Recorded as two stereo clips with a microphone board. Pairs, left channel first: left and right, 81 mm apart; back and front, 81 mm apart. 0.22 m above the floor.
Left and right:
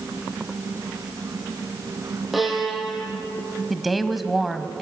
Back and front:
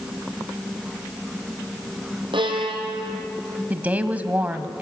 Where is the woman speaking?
Straight ahead, 1.1 m.